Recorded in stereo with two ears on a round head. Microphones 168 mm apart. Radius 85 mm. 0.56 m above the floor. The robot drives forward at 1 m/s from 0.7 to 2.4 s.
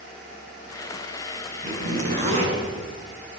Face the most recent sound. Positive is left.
turn(degrees=-35)  # may be behind; listen again after turning